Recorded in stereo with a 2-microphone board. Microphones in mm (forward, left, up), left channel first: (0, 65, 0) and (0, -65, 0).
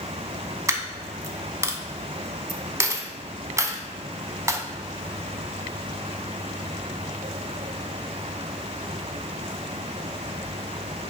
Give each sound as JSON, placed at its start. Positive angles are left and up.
{"t": 0.7, "sound": "a dropped coin", "side_deg": -25, "distance_m": 0.5}